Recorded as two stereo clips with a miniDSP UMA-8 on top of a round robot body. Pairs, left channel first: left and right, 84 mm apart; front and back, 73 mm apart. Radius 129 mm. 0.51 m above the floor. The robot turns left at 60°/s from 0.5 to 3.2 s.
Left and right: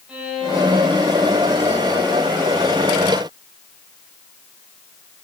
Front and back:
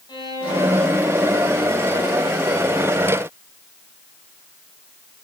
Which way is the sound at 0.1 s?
10° right.